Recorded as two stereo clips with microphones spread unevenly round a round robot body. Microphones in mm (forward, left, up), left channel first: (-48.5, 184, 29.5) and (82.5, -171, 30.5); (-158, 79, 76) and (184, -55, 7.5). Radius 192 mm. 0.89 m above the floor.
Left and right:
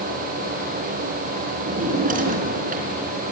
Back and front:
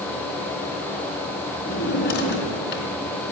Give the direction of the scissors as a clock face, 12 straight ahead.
No scissors in this recording.